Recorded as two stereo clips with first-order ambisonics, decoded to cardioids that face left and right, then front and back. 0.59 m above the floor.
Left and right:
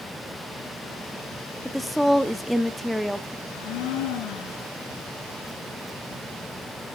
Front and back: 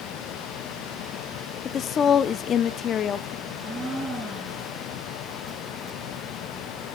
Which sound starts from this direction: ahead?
A woman speaking, at 1.6 s.